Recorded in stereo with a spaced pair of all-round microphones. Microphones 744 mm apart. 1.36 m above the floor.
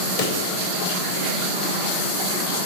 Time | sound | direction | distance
0.2 | a pop | 75° left (ahead or behind) | 0.8 m